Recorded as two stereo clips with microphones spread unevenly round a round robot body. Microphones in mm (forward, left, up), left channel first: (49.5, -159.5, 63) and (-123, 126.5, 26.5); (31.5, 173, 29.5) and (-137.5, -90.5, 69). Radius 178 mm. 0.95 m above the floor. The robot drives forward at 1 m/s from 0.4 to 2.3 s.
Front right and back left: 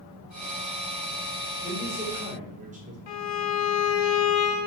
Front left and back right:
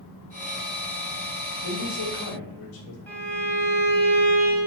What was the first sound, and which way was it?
A man speaking, 45° left.